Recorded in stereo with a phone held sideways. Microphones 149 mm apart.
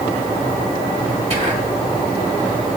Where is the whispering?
35° right (ahead or behind), 2.5 m.